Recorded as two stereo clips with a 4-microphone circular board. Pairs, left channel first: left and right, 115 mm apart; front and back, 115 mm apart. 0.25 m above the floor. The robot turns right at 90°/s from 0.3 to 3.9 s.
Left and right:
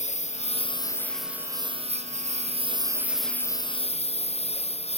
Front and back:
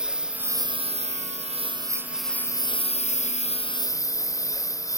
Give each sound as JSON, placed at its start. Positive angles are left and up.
{"t": 0.0, "sound": "a lawn mower", "azimuth_deg": 100}